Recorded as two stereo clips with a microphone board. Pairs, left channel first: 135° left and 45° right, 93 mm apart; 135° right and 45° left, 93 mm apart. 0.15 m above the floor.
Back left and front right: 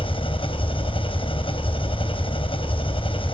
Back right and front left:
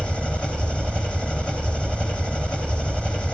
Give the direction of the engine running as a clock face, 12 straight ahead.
7 o'clock.